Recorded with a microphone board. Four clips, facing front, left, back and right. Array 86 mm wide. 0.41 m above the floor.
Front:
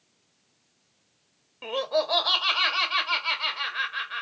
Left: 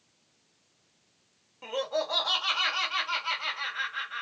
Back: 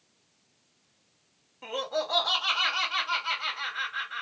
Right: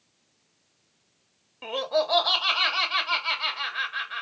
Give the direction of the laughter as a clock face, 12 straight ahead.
1 o'clock.